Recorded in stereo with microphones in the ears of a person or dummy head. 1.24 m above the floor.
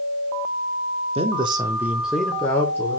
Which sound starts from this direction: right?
A man speaking, at 1.1 s.